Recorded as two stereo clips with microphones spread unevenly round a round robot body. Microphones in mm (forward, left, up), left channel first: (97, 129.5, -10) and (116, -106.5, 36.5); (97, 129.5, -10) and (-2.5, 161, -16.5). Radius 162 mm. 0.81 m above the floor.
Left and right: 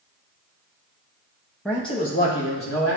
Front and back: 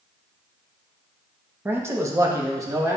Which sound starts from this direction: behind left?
A man speaking, at 1.6 s.